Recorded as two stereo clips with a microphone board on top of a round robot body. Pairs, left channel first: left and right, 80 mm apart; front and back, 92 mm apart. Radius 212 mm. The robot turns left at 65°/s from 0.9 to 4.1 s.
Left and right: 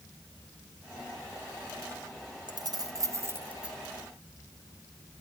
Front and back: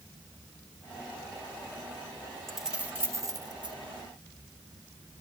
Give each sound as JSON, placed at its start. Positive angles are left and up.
{"t": 2.5, "sound": "keys jangling", "azimuth_deg": -85, "distance_m": 1.3}